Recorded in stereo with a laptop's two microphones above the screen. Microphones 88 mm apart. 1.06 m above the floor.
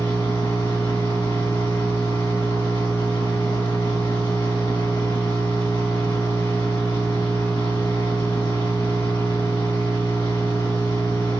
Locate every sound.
0.0 s a machine running: 65° left (ahead or behind), 1.3 m